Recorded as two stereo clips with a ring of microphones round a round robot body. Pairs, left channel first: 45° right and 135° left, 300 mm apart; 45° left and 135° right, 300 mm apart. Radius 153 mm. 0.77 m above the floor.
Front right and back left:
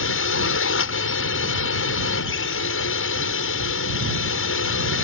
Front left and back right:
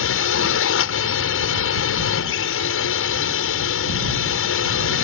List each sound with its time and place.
0.0 s a drone: straight ahead